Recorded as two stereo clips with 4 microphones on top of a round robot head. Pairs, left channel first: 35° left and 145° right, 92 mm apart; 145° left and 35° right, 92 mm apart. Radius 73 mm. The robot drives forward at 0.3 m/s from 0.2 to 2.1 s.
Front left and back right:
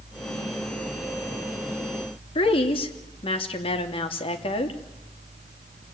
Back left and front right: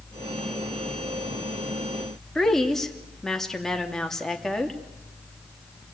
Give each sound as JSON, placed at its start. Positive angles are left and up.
{"t": 2.4, "sound": "a woman speaking", "azimuth_deg": 60, "distance_m": 3.0}